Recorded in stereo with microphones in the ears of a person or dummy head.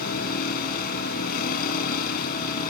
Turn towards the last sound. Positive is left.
turn(degrees=55)  # may be behind; listen again after turning